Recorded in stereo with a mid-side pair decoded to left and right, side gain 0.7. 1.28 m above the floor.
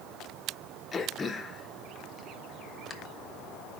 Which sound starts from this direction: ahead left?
Throat clearing, at 0.9 s.